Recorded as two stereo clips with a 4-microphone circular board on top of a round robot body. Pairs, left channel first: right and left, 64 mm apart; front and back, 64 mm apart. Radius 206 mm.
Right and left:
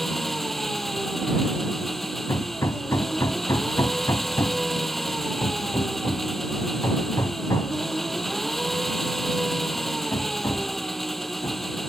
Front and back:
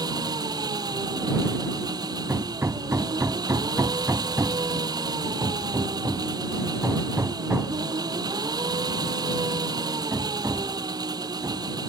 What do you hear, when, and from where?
0.0 s an engine running: straight behind
2.3 s hammering: 130° right